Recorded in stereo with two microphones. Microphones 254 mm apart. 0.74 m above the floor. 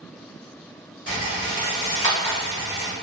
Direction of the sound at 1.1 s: 45° right (ahead or behind).